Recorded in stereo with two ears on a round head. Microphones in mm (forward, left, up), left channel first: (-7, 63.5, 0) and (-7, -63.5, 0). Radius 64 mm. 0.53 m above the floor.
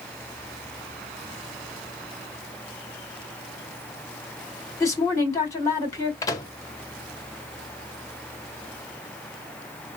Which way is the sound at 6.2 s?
25° left (ahead or behind).